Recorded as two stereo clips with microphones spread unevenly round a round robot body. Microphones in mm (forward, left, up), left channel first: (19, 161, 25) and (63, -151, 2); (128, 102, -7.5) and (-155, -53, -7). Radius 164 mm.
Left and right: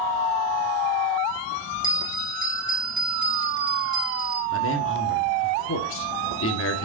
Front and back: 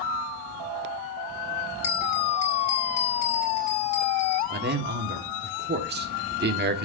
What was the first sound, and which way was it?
A bell, 5° right.